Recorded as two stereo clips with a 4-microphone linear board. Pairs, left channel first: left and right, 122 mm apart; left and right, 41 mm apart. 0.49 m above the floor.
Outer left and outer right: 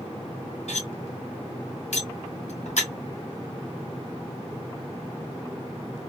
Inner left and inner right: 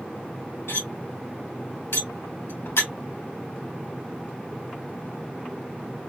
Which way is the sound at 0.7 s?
75° left (ahead or behind).